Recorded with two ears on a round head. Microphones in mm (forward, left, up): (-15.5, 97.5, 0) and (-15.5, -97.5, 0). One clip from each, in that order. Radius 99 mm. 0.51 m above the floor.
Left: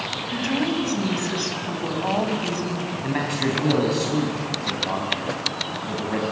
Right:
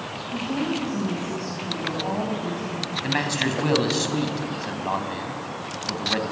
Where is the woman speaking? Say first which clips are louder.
Left 2 dB; 60° left (ahead or behind), 4.5 m.